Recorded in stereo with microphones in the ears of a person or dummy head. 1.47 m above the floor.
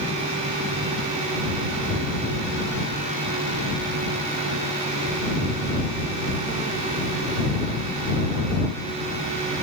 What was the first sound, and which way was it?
Only background noise.